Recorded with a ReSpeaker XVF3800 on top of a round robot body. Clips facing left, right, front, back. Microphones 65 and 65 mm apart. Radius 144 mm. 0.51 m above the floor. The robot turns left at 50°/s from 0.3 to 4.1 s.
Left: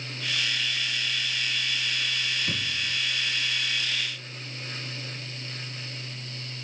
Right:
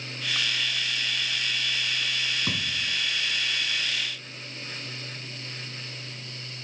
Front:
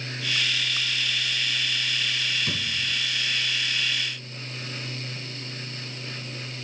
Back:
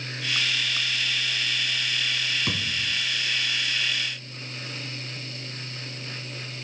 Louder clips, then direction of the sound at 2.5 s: Right 1 dB, back 1 dB; 125° right.